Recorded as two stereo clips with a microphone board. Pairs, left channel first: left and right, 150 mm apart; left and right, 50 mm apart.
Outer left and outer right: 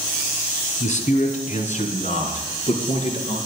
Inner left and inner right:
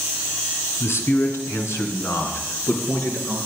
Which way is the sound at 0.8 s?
55° left (ahead or behind).